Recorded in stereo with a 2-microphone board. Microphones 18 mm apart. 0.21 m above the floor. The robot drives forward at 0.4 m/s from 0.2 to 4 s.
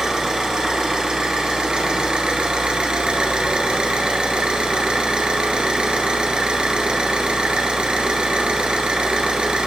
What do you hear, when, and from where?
0.0 s an engine running: 40° right (ahead or behind), 1.6 m; by 9.7 s 70° right (ahead or behind), 1.1 m